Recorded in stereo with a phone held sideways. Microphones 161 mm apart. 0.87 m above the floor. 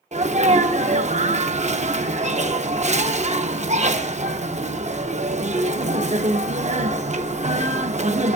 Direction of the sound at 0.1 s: 45° right (ahead or behind).